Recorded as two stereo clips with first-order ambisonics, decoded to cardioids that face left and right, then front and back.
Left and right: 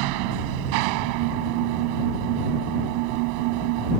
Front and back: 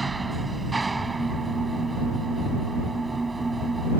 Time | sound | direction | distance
0.0 | an engine running | 100° right | ?